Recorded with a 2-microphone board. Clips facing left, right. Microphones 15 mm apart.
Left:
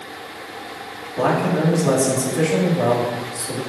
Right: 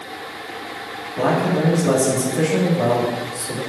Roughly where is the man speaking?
Left.